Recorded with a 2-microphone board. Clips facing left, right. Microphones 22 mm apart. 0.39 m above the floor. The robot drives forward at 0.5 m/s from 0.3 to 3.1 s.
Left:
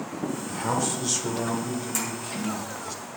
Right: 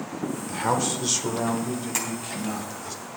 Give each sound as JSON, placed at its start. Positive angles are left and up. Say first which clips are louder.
{"t": 0.5, "sound": "a man speaking", "louder": "right 3 dB", "side_deg": -20, "distance_m": 0.9}
{"t": 1.9, "sound": "tapping", "louder": "right 1 dB", "side_deg": -25, "distance_m": 3.5}